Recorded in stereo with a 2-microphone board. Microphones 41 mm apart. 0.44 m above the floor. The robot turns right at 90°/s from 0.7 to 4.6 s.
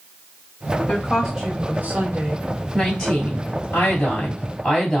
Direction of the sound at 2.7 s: 10° right.